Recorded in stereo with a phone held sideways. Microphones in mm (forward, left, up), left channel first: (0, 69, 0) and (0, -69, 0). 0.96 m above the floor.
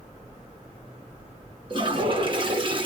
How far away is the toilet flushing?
About 1.0 m.